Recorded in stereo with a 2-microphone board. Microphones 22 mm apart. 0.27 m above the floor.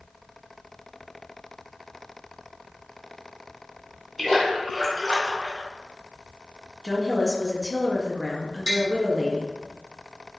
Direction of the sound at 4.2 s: 10° left (ahead or behind).